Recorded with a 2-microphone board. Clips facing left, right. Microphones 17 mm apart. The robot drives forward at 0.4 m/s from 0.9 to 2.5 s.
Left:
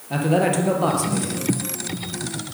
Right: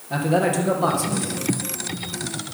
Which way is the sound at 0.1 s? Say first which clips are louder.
Left 1 dB; 20° left (ahead or behind).